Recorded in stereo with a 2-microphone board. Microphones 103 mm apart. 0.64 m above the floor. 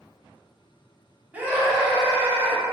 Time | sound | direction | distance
1.3 | a scream | 15° right (ahead or behind) | 1.0 m